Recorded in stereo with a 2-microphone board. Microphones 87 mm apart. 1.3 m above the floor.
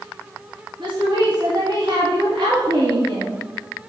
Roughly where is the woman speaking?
Right.